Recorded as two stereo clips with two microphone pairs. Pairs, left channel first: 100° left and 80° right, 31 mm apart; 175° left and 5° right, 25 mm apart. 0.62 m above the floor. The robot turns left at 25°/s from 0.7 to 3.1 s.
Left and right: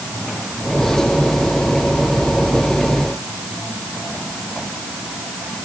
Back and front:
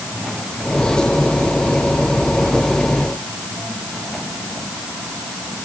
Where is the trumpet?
No trumpet in this recording.